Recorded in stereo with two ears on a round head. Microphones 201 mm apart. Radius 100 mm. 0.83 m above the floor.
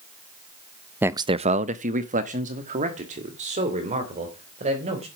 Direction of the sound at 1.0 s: 10° right (ahead or behind).